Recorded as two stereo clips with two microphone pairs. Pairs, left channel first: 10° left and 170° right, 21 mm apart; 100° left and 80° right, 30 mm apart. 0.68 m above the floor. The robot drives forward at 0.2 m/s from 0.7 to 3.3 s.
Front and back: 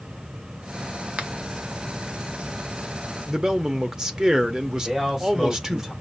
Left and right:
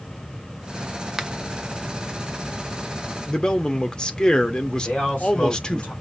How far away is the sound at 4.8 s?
About 3 m.